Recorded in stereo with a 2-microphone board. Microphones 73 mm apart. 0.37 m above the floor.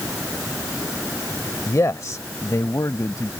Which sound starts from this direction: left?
A man speaking, at 1.7 s.